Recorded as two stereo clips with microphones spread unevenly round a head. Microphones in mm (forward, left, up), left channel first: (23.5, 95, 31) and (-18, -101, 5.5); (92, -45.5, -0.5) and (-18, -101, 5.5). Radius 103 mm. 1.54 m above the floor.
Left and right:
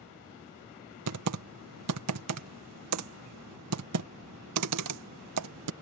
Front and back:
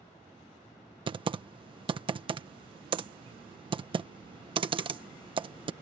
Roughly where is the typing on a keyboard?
Right.